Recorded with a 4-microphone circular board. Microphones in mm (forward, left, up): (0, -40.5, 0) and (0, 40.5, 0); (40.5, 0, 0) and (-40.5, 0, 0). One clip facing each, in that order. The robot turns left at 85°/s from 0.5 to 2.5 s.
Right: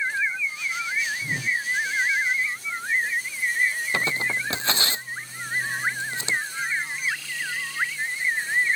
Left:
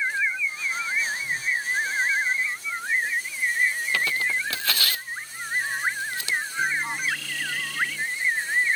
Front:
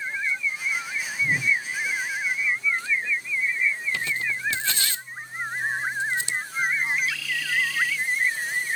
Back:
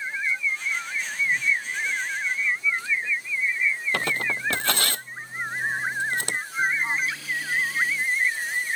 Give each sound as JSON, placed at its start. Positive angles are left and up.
{"t": 1.2, "sound": "a whoosh", "azimuth_deg": -35}
{"t": 3.9, "sound": "tearing paper", "azimuth_deg": -150}
{"t": 6.6, "sound": "a bird", "azimuth_deg": 125}